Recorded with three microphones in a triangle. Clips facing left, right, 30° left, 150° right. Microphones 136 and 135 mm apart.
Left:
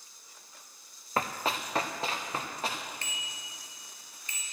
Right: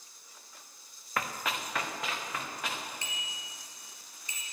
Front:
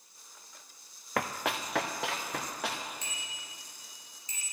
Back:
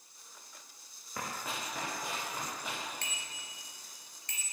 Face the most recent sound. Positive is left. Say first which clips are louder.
# even, front 1 dB
turn(degrees=-160)